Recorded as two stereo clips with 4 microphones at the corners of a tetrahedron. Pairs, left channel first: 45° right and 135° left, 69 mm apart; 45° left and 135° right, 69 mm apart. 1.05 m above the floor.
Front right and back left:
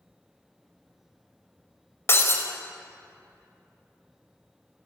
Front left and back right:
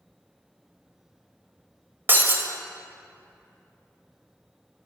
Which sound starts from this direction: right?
Breaking glass, at 2.1 s.